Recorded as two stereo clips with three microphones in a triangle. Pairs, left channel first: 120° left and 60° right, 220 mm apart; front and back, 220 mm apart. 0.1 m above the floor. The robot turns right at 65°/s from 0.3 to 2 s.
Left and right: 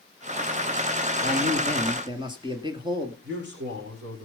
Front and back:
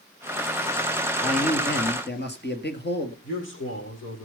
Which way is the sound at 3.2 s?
25° right.